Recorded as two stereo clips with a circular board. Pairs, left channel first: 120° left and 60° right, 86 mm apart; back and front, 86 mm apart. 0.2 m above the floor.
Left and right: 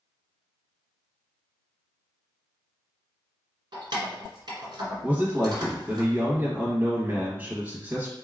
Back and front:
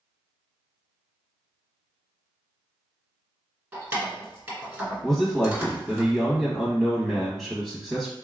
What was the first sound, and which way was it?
Keys jangling, 65° right.